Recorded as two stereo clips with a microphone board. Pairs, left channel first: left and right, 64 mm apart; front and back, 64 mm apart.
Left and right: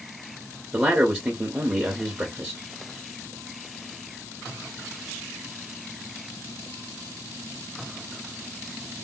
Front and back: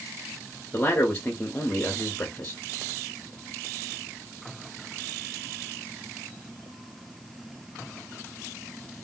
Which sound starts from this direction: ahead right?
A man speaking, at 0.7 s.